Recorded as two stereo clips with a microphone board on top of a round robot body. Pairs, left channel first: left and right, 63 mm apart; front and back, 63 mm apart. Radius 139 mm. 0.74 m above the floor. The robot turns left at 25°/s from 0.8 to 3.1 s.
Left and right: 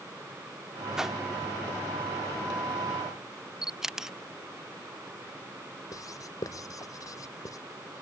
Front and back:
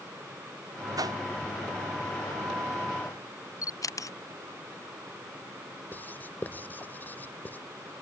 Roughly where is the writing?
Ahead left.